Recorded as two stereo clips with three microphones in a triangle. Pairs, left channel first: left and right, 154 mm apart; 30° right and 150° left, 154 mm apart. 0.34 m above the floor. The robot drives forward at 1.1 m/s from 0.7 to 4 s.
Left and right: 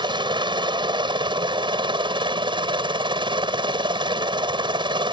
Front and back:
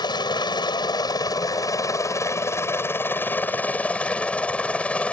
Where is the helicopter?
65° right; by 5.1 s 105° right.